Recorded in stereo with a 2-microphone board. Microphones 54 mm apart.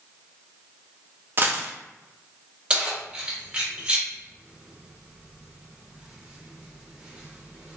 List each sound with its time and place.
1.4 s a dropped coin: 40° right (ahead or behind), 0.6 m
2.7 s keys jangling: 20° right (ahead or behind), 0.9 m